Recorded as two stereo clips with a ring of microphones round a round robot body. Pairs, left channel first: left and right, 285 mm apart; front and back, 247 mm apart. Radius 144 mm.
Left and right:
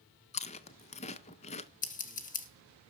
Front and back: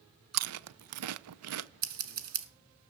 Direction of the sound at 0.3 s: 160° left.